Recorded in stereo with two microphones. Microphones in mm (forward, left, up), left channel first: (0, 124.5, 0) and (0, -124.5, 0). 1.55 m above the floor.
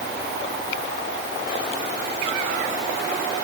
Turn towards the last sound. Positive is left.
No sound to turn to.